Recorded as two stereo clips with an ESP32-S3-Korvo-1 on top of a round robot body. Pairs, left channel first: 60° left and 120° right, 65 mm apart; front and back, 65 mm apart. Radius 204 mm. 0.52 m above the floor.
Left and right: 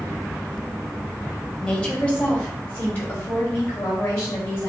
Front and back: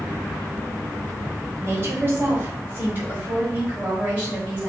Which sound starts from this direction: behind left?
A woman speaking, at 1.6 s.